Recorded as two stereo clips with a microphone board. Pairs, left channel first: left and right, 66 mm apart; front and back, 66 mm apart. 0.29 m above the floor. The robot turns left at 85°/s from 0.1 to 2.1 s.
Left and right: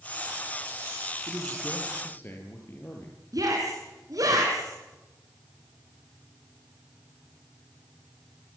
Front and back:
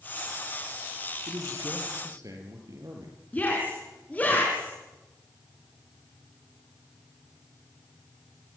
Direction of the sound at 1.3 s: 140° right.